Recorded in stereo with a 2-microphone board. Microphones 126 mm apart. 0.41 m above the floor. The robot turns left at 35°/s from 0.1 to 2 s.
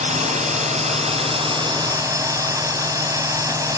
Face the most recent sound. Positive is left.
turn(degrees=-150)